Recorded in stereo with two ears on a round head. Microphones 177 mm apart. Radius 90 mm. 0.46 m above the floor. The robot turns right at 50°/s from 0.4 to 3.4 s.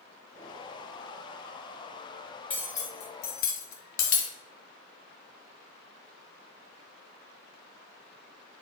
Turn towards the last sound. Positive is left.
turn(degrees=40)  # may be behind; listen again after turning